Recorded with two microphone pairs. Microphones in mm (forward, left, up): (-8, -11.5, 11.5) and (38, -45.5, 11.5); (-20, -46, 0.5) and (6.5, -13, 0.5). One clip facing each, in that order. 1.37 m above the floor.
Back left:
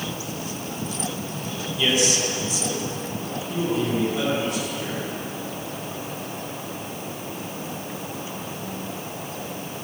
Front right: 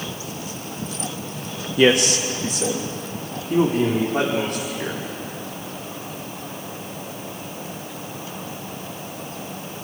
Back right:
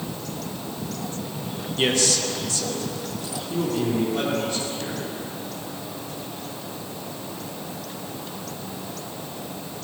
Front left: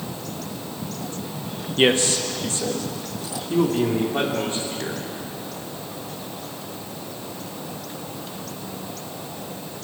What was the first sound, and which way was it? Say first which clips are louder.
A man speaking: front right 6 dB, front left 4 dB; 10° right.